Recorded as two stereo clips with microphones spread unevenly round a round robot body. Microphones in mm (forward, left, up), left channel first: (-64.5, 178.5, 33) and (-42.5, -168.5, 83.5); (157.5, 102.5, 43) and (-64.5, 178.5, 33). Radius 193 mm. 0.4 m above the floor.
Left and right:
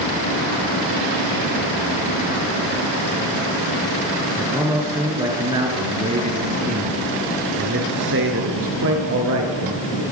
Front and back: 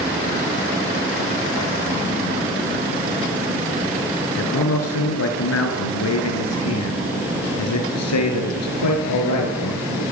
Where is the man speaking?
Straight ahead, 5 m; by 10.0 s 35° right, 6.5 m.